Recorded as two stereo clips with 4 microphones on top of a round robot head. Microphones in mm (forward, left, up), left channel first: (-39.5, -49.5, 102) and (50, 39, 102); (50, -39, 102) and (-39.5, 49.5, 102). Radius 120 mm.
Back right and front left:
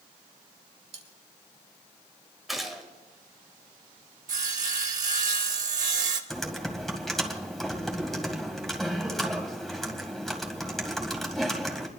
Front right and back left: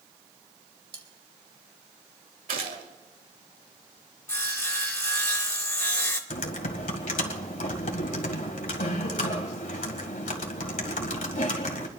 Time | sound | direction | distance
0.9 | cutlery clinking | 85° left | 2 m
2.5 | a gunshot | 135° left | 1.9 m
4.3 | sawing | 25° left | 1.1 m
6.3 | typing on a keyboard | 45° right | 1.8 m